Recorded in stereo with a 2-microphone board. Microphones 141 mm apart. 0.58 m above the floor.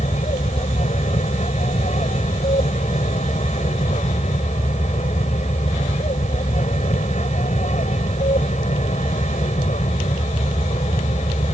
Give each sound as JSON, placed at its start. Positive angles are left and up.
{"t": 0.0, "sound": "an aircraft", "side_deg": 55}